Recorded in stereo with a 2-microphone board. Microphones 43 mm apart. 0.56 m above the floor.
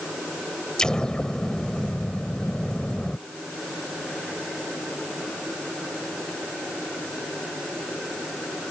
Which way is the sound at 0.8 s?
15° left (ahead or behind).